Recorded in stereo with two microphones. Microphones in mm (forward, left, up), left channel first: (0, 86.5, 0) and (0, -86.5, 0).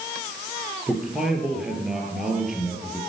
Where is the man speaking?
5° right (ahead or behind), 3.5 m.